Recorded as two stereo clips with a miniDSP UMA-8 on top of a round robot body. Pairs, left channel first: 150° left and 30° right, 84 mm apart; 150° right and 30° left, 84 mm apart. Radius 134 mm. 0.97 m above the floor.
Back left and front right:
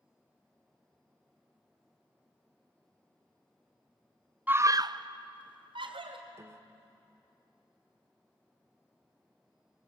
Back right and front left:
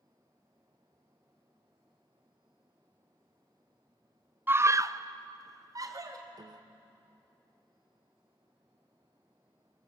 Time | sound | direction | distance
4.5 | a scream | 10° left | 0.7 m
6.3 | a piano | 20° left | 1.0 m